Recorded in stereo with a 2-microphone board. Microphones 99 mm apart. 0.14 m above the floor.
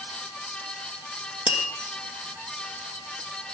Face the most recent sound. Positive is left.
turn(degrees=70)  # may be behind; listen again after turning